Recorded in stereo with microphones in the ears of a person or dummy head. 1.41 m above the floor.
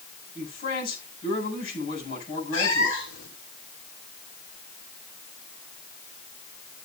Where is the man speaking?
50° left (ahead or behind), 7.5 m.